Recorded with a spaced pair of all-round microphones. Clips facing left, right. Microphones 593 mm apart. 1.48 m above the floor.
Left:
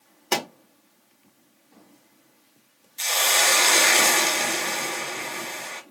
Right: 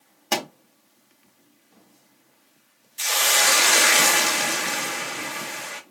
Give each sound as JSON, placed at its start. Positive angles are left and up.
{"t": 0.3, "sound": "a pop", "side_deg": -20, "distance_m": 1.2}
{"t": 3.0, "sound": "a hiss", "side_deg": -40, "distance_m": 0.6}